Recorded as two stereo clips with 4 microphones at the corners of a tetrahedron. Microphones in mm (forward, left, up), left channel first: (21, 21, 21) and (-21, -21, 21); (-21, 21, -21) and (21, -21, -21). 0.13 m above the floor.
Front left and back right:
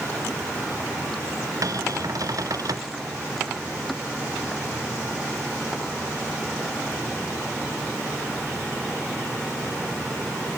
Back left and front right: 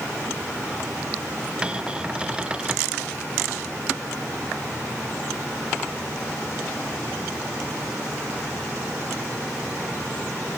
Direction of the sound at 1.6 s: 120° right.